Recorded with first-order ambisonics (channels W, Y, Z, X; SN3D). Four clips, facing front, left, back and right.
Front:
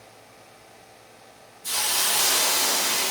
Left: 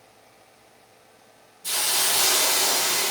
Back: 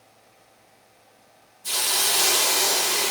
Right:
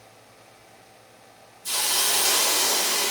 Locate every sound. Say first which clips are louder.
1.6 s a hiss: even, back 1 dB; 85° left, 0.9 m